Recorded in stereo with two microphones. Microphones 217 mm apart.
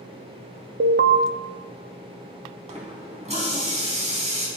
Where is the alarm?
65° right (ahead or behind), 0.8 m.